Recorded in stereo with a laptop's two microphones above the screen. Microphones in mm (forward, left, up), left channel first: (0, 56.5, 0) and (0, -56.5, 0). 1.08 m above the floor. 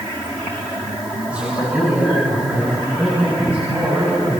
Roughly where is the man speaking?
Centre.